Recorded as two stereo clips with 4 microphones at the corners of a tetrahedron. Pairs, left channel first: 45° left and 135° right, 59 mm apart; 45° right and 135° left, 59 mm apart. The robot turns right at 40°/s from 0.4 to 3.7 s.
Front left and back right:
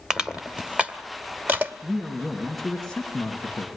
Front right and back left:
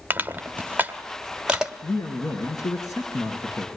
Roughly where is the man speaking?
Right.